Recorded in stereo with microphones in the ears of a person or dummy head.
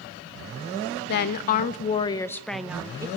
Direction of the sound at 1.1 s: 65° left (ahead or behind).